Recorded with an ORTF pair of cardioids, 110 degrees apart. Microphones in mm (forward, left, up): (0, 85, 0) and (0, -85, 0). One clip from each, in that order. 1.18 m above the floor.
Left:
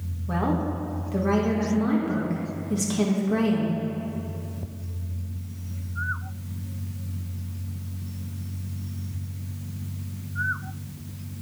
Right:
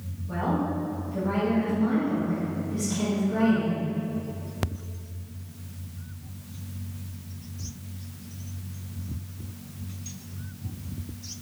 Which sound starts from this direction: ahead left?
A woman speaking, at 0.3 s.